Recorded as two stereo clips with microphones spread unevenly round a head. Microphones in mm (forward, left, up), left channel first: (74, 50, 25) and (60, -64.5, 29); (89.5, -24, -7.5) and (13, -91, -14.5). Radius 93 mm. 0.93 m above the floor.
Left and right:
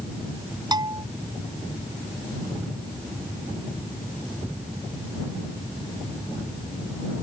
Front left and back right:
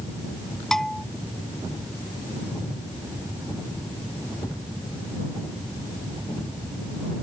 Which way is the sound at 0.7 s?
45° right.